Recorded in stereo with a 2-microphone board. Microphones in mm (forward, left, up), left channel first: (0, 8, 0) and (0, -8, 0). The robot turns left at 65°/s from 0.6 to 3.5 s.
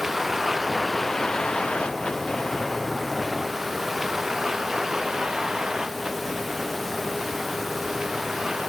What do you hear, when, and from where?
0.0 s a vehicle: 20° right (ahead or behind); by 8.7 s 50° right (ahead or behind)